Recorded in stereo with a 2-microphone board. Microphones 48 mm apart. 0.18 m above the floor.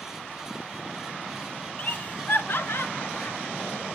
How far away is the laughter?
About 1.7 m.